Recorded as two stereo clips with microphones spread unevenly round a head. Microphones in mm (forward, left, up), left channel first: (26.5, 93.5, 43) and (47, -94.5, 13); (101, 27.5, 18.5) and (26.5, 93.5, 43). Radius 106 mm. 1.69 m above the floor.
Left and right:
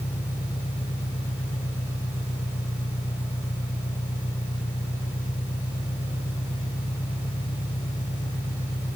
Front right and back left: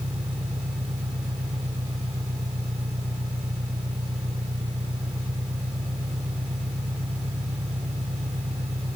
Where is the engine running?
160° left.